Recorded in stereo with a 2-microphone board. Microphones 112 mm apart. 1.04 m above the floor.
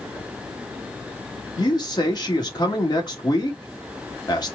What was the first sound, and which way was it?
A man speaking, 40° left (ahead or behind).